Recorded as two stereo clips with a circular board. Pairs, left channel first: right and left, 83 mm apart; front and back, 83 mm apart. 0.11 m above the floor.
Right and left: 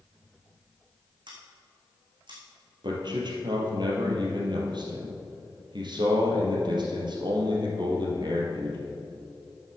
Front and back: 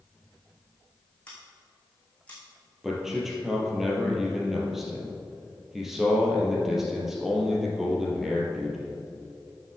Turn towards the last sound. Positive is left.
turn(degrees=95)